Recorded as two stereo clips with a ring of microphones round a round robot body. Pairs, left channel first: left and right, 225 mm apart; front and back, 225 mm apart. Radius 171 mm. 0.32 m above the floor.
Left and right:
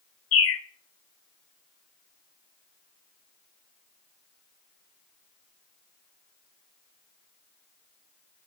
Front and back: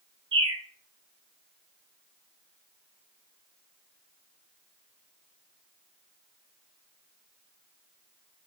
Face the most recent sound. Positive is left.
turn(degrees=110)